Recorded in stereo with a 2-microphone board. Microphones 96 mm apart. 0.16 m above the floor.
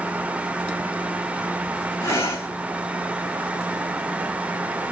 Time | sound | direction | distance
2.0 | breathing | 30° left (ahead or behind) | 1.0 m